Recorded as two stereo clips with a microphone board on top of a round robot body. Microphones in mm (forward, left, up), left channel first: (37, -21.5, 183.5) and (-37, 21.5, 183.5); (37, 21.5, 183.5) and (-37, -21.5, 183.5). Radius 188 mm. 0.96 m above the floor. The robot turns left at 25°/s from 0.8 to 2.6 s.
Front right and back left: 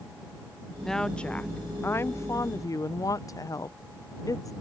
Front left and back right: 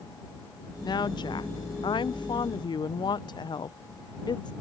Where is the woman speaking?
55° left; by 4.5 s 10° left.